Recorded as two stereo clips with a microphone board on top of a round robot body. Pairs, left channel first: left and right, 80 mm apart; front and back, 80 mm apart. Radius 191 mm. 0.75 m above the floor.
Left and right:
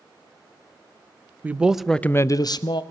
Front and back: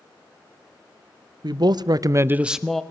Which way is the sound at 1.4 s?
160° right.